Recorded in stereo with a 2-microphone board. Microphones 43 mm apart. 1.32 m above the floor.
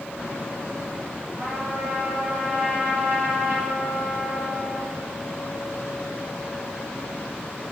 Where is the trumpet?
70° right (ahead or behind), 3 m.